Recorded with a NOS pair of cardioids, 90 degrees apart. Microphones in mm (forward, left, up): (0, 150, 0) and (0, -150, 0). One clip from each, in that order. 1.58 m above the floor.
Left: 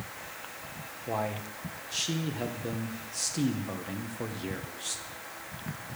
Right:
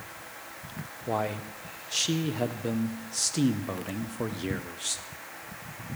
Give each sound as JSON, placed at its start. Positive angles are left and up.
{"t": 1.1, "sound": "a man speaking", "azimuth_deg": -30, "distance_m": 1.4}